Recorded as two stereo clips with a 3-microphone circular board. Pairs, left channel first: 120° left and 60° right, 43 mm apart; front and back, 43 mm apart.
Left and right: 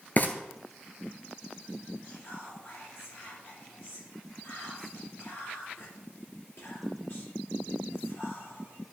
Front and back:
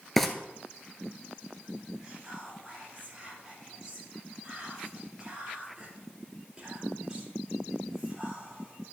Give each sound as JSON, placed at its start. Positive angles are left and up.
{"t": 0.2, "sound": "frying", "azimuth_deg": 85, "distance_m": 1.1}
{"t": 2.0, "sound": "whispering", "azimuth_deg": 110, "distance_m": 3.5}